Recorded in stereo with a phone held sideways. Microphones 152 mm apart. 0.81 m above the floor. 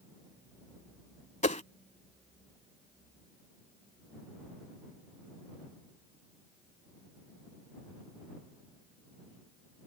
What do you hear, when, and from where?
1.4 s a whoosh: 50° left (ahead or behind)